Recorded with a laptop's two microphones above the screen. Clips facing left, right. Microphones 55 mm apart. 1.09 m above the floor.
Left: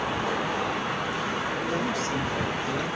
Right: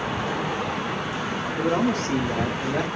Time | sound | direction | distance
1.6 | a man speaking | 55° right (ahead or behind) | 2.5 m